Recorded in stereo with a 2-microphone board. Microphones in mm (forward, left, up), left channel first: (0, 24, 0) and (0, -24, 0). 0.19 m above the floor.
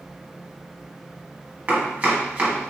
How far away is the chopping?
About 1.1 m.